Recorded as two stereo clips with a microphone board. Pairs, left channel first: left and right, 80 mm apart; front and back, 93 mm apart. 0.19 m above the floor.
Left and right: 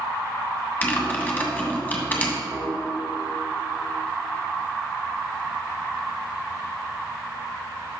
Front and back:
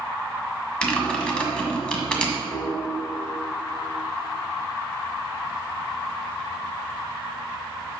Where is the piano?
85° right, 2.5 m.